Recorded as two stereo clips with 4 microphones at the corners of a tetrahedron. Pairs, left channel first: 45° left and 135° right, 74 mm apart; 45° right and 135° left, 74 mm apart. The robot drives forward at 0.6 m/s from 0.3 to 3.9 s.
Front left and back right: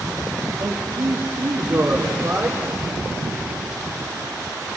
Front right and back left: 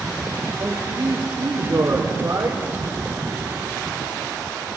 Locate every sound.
0.6 s a man speaking: 165° right, 2.5 m; by 2.6 s 170° right, 3.5 m